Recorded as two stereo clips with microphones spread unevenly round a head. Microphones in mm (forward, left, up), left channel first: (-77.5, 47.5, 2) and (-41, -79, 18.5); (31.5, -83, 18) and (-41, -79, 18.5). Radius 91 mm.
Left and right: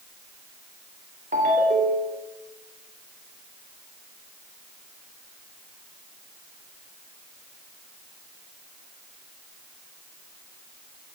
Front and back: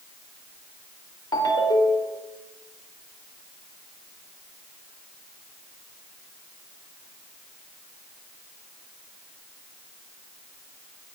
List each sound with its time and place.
1.3 s a ringtone: 20° right, 3 m